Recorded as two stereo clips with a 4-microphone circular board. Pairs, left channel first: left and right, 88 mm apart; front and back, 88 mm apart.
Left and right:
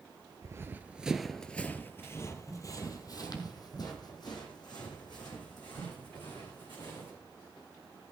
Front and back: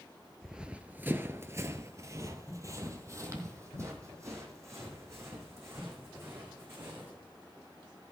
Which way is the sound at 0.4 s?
100° right.